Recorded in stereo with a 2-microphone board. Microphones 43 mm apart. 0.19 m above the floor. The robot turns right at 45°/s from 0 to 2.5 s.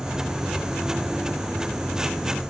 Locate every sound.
Only background noise.